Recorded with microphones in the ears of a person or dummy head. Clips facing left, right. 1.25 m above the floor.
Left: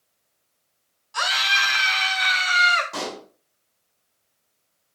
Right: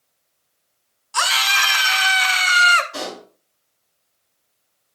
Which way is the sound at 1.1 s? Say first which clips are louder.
Right 4 dB; 65° right (ahead or behind).